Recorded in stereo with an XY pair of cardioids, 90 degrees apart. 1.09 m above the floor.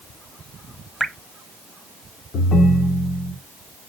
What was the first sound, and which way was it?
Dripping, 5° right.